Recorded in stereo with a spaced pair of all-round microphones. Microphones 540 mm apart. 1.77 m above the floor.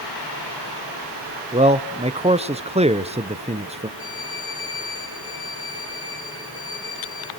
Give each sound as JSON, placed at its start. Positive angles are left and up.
{"t": 1.5, "sound": "a man speaking", "side_deg": -10, "distance_m": 0.6}
{"t": 4.0, "sound": "a violin", "side_deg": 75, "distance_m": 6.0}